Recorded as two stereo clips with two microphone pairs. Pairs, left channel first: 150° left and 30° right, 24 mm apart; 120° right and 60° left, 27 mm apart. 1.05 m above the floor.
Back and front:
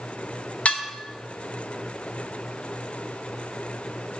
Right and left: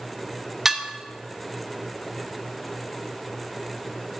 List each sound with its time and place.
0.7 s dishes clattering: 130° left, 0.5 m